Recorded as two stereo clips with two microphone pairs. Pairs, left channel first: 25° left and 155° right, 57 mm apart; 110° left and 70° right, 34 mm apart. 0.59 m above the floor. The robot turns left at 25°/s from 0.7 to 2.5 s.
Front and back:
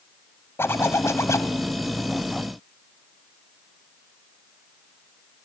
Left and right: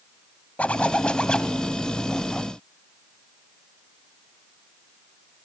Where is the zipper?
65° left, 1.2 m; by 1.6 s 45° left, 1.2 m.